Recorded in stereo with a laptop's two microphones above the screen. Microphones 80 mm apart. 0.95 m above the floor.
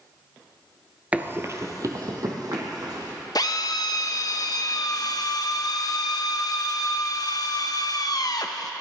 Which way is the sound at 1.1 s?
20° right (ahead or behind).